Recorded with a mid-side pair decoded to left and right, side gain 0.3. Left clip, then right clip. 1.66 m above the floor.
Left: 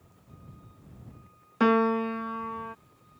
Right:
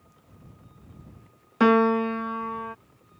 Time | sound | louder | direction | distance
1.6 | a piano | right 4 dB | 35° right | ?